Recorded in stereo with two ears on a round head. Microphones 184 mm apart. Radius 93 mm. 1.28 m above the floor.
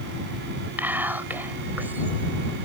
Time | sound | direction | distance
0.8 | whispering | 10° right (ahead or behind) | ?